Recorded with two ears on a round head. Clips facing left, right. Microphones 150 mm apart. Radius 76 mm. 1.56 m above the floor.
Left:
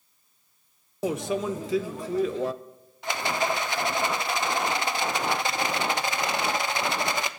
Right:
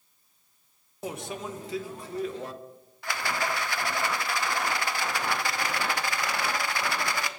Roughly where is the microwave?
Left.